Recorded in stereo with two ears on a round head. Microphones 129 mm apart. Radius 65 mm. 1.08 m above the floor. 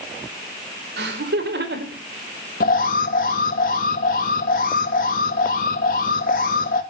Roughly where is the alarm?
Left.